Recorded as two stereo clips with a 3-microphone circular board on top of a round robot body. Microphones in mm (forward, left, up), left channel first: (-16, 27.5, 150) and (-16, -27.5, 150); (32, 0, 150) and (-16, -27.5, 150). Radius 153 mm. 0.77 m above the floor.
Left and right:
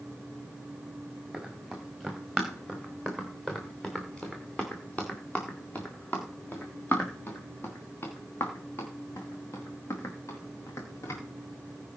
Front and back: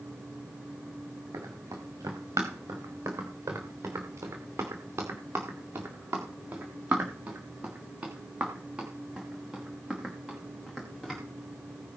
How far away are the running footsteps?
About 4 m.